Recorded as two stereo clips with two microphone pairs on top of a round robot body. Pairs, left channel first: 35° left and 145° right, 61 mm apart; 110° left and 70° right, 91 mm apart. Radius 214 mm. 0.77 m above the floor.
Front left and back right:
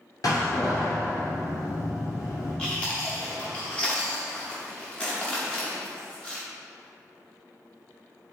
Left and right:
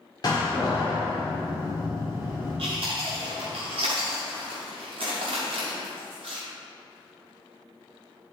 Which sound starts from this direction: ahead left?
A door slam, at 0.2 s.